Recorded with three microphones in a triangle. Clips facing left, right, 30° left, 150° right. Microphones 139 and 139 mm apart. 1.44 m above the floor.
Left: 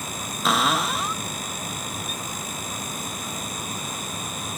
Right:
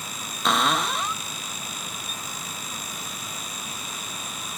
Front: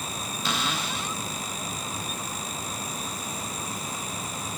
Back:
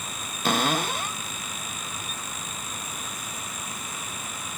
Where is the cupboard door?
Straight behind.